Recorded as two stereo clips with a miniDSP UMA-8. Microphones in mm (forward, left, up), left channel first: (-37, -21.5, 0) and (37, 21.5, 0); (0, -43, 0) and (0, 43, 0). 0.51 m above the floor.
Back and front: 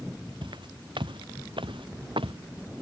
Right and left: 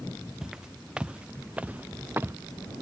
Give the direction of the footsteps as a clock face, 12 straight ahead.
12 o'clock.